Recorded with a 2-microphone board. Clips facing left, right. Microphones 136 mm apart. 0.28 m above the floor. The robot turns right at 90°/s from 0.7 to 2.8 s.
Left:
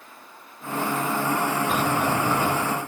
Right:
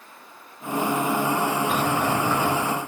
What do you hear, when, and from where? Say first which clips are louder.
1.7 s a sliding door: even; 5° left (ahead or behind), 0.6 m; by 2.8 s 15° left (ahead or behind), 0.6 m